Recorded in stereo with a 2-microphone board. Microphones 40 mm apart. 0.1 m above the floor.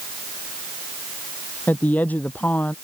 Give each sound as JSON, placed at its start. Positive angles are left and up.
{"t": 1.7, "sound": "a woman speaking", "side_deg": 45}